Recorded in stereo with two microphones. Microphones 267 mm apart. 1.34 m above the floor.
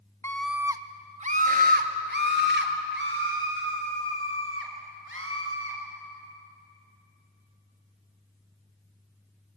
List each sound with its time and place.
0.2 s a scream: 10° left (ahead or behind), 1.0 m; by 5.8 s 50° right (ahead or behind), 6.5 m